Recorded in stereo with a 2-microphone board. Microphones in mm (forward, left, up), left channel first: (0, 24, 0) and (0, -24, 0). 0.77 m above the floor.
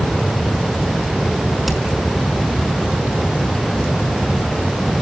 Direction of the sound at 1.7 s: Centre (ahead or behind).